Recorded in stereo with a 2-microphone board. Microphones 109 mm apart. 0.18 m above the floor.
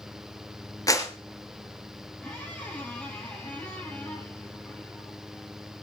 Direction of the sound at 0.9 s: 30° left (ahead or behind).